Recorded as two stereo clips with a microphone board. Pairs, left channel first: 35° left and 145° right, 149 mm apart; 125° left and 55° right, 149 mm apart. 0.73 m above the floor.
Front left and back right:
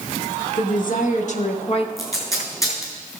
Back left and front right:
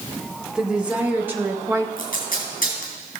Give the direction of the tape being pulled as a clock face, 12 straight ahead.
9 o'clock.